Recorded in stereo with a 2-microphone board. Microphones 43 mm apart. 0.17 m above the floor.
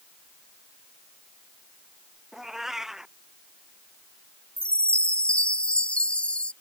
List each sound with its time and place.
2.3 s a cat meowing: 10° right (ahead or behind)
4.6 s a chime: 25° left (ahead or behind)